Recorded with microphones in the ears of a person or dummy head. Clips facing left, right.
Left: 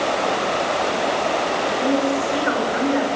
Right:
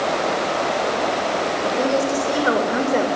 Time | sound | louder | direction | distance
1.6 | a woman speaking | even | 45° right (ahead or behind) | 6.5 m